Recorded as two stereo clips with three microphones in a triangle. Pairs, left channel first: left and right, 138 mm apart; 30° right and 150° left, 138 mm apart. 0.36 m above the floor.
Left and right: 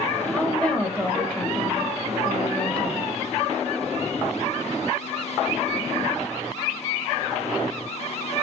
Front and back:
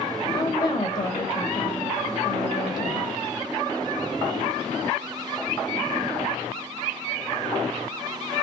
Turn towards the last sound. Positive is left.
turn(degrees=10)